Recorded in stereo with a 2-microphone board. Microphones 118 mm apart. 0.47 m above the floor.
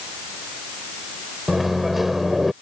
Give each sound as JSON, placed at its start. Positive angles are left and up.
{"t": 1.5, "sound": "a microwave", "side_deg": 0}